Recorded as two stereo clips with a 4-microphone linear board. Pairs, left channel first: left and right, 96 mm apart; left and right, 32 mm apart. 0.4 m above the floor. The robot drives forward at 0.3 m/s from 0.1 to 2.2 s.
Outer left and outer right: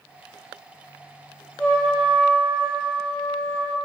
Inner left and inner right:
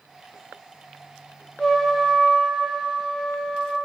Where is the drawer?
I don't hear a drawer.